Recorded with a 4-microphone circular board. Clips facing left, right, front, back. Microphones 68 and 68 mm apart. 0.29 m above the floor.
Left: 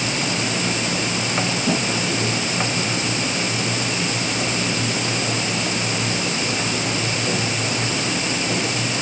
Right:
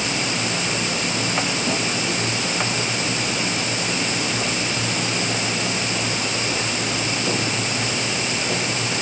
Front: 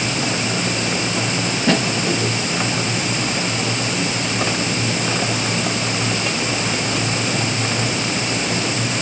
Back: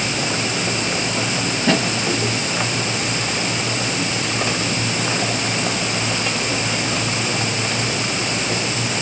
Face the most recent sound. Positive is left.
No sound to turn to.